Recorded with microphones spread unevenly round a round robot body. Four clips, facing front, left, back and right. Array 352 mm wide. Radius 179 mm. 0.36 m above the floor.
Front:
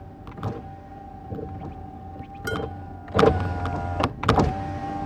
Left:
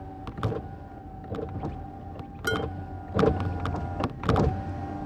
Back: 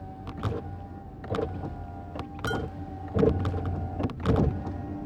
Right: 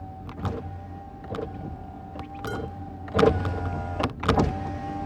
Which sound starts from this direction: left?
Dishes clattering, at 2.5 s.